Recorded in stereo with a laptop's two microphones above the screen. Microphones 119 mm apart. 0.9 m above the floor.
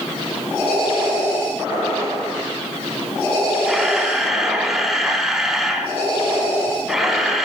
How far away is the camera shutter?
About 1.1 m.